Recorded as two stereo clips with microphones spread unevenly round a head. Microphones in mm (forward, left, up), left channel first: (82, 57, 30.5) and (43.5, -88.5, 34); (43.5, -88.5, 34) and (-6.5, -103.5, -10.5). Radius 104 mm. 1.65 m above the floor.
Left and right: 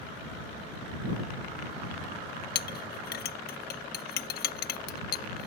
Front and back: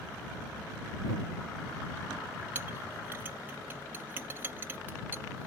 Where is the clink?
90° left.